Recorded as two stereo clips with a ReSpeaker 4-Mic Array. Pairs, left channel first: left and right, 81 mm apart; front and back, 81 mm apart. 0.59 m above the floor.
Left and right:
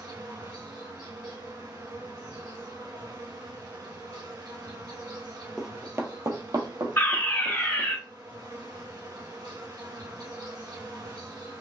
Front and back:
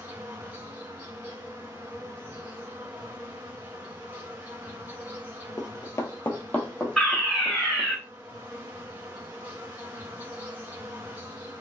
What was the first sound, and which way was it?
An insect, 115° right.